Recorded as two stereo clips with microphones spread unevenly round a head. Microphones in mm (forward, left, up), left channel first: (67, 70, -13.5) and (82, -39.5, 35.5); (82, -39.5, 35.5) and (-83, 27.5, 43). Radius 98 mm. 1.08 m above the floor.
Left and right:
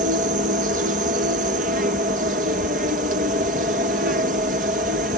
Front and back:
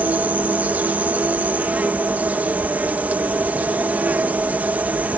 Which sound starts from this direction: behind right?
An insect, at 0.0 s.